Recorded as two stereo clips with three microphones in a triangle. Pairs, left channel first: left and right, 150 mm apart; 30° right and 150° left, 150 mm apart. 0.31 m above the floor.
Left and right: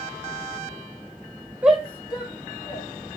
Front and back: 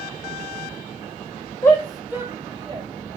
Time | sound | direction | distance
1.6 | a shout | 25° right | 1.0 m